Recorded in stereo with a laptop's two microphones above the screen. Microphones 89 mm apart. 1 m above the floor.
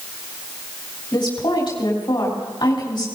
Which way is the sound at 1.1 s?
60° left (ahead or behind).